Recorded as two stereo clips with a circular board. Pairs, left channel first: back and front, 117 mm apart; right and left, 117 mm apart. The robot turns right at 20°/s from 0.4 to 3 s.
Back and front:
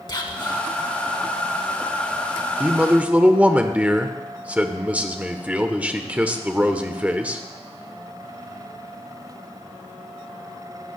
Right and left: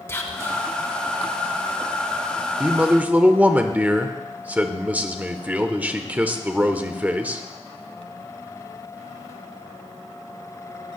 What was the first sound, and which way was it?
Whispering, 150° right.